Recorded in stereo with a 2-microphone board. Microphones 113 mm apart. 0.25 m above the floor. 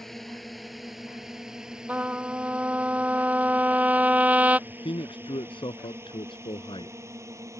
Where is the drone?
Centre (ahead or behind); by 7.6 s 30° right (ahead or behind).